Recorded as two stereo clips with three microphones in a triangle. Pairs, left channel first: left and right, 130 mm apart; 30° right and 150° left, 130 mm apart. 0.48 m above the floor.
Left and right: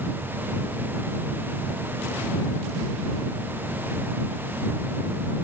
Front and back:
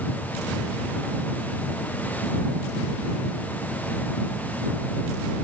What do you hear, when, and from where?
Only background noise.